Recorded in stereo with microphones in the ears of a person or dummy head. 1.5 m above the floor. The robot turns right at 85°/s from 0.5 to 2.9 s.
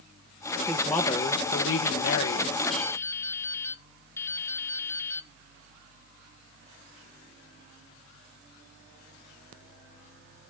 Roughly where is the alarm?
No alarm in this recording.